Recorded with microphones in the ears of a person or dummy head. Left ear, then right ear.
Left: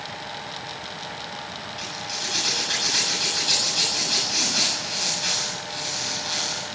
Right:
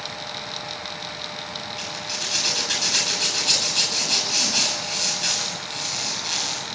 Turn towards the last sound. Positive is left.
turn(degrees=-15)  # may be behind; listen again after turning